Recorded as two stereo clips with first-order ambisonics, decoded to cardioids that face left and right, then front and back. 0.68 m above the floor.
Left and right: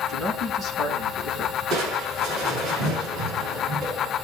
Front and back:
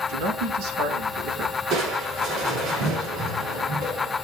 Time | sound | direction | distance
0.1 | a man speaking | 175° left | 6 m
1.7 | crushing | 140° right | 7 m